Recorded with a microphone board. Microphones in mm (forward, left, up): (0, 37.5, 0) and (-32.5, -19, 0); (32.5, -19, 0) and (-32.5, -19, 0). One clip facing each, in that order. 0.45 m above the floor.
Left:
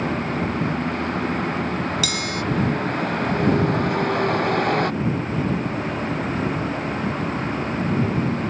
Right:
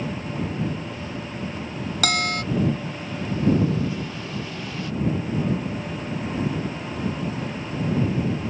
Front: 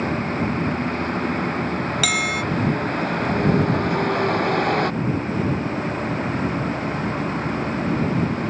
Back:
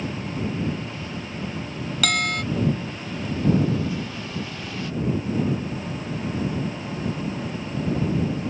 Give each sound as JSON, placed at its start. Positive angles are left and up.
{"t": 0.0, "sound": "a vehicle", "azimuth_deg": 35}
{"t": 2.0, "sound": "a bell", "azimuth_deg": -85}